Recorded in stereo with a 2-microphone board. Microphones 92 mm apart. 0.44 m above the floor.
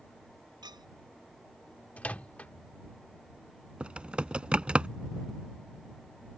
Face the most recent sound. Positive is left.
turn(degrees=-10)  # may be behind; listen again after turning